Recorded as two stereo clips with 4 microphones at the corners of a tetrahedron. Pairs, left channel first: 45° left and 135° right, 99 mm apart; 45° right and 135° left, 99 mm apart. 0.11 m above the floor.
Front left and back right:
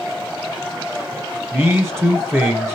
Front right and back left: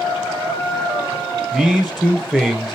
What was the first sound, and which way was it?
A man speaking, 135° right.